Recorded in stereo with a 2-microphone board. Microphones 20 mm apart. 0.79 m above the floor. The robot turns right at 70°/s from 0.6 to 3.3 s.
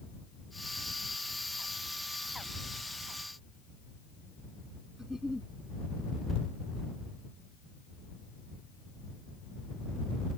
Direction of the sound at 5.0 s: 30° right (ahead or behind).